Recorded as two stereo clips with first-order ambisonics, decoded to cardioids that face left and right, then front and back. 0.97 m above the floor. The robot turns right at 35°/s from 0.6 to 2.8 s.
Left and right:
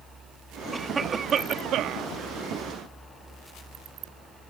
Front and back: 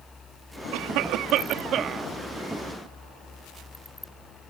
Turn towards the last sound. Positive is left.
turn(degrees=-95)